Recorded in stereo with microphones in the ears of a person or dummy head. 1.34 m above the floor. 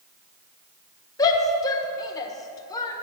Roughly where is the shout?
Left.